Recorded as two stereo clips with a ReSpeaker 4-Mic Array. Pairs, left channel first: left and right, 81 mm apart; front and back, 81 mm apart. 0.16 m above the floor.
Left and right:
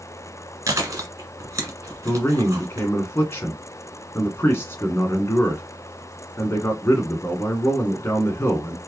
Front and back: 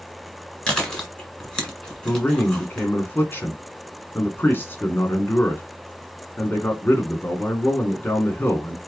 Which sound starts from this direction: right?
Chewing, at 0.7 s.